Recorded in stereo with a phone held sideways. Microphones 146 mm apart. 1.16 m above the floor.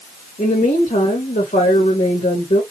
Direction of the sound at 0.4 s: 70° left (ahead or behind).